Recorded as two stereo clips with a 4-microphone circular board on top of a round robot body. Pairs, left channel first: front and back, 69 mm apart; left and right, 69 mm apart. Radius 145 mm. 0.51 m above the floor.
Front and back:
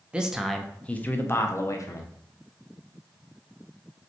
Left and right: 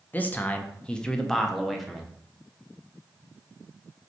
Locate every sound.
0.1 s a man speaking: 120° left, 0.9 m; by 2.1 s 5° right, 1.2 m